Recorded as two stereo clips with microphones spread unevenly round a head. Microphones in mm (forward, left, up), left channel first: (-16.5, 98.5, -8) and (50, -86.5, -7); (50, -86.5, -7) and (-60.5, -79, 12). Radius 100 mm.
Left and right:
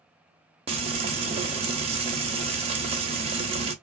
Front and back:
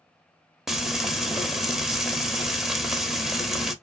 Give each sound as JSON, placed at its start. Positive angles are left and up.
{"t": 0.7, "sound": "frying", "azimuth_deg": -110, "distance_m": 0.7}